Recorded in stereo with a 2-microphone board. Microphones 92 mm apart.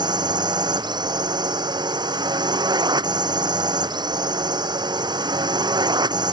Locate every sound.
0.0 s a drone: 50° right (ahead or behind)